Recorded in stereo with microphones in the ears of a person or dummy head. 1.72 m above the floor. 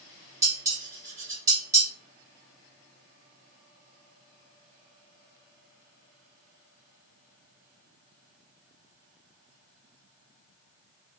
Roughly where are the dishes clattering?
Centre.